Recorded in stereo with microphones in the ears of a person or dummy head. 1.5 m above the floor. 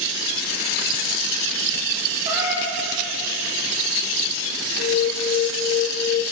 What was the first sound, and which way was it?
A cat meowing, 20° right (ahead or behind).